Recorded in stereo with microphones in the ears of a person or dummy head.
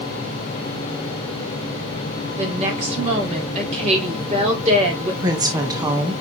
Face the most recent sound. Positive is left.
turn(degrees=-20)  # may be behind; listen again after turning